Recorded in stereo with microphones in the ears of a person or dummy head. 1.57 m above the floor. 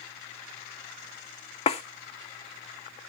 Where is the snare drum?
30° left (ahead or behind), 0.6 m.